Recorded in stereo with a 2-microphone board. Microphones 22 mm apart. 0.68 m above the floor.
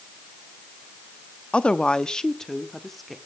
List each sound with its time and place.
1.5 s a woman speaking: 50° left (ahead or behind), 0.7 m; by 3.2 s centre (ahead or behind), 1.3 m